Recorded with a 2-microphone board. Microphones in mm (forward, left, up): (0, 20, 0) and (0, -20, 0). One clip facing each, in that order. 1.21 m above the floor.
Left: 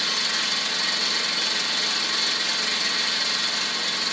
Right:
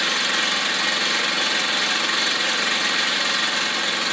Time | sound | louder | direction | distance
0.0 | an engine running | right 5 dB | 50° right (ahead or behind) | 0.8 m